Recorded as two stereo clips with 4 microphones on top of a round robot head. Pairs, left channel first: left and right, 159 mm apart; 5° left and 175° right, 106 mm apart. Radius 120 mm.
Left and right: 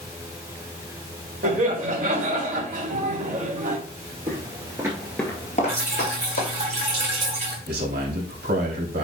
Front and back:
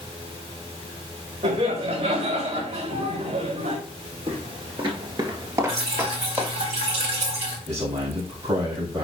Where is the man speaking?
110° right, 3 m.